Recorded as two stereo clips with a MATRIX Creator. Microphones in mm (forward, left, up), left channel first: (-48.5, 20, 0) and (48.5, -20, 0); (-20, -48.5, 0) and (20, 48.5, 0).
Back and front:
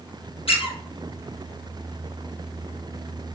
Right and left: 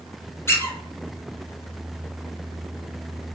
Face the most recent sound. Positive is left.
turn(degrees=180)